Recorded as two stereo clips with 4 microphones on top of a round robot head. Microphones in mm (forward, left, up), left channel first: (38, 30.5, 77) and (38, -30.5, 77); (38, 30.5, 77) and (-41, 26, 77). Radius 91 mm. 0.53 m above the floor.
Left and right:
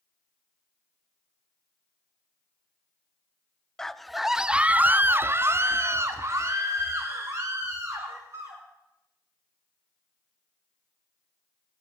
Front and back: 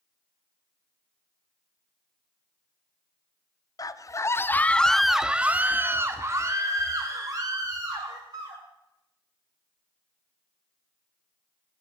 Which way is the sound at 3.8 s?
10° left.